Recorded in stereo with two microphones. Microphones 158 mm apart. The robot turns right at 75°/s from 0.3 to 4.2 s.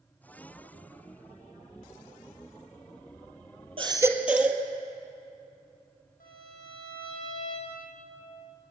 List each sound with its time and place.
3.8 s a baby crying: 40° right, 1.6 m; by 4.6 s 10° right, 1.6 m
6.2 s a violin: 75° left (ahead or behind), 9 m